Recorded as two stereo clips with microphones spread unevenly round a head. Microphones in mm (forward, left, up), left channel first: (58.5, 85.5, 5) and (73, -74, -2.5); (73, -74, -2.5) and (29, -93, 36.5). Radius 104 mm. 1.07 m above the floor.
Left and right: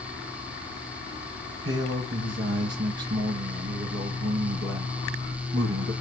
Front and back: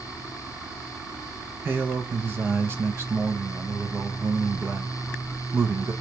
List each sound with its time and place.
1.6 s a man speaking: 110° right, 0.8 m